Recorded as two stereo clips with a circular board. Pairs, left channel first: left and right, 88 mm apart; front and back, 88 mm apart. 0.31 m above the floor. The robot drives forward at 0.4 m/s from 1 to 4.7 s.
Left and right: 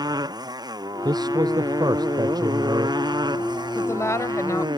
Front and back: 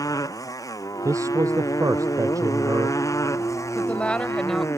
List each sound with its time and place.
0.0 s a motorcycle: 50° right; by 4.8 s 55° right
1.1 s a man speaking: 130° right
3.8 s a woman speaking: 60° left; by 4.7 s 90° left